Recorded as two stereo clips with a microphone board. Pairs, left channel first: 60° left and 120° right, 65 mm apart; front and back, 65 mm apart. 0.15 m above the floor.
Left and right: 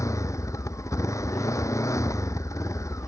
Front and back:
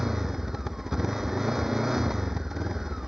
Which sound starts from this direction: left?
A motorcycle, at 0.0 s.